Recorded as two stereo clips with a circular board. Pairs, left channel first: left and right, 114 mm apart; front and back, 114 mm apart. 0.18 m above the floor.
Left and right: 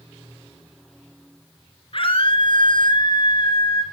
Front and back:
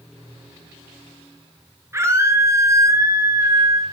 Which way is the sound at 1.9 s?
115° left.